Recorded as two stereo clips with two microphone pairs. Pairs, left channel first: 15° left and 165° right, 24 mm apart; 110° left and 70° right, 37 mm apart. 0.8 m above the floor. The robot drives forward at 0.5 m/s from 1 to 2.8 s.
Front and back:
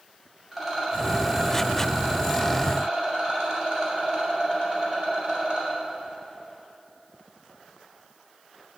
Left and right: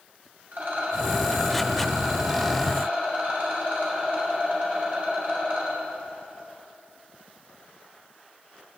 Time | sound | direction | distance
0.5 | a rattle | 85° right | 2 m